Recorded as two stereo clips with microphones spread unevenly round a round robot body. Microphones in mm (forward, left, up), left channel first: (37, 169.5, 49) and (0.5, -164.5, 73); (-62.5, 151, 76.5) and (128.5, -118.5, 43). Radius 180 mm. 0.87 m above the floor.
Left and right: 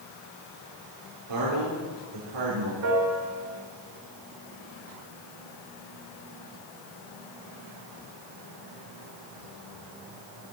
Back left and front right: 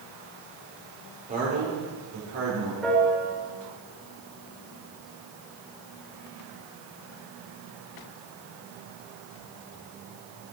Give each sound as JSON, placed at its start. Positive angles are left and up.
{"t": 1.3, "sound": "a man speaking", "azimuth_deg": -120, "distance_m": 3.5}
{"t": 2.8, "sound": "a piano", "azimuth_deg": -145, "distance_m": 4.0}